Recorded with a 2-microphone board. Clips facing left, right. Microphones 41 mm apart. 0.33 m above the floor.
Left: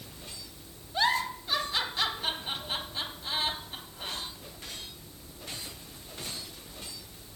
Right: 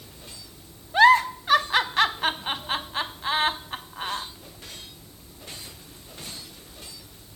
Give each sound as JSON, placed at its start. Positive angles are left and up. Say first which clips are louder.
{"t": 0.9, "sound": "a giggle", "louder": "right 12 dB", "side_deg": -75, "distance_m": 0.6}